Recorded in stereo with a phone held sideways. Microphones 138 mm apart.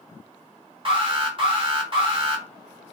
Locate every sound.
0.8 s an alarm: 40° right (ahead or behind), 1.3 m